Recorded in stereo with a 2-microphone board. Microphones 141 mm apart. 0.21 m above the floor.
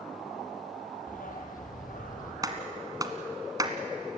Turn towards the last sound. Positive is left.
turn(degrees=-25)  # may be behind; listen again after turning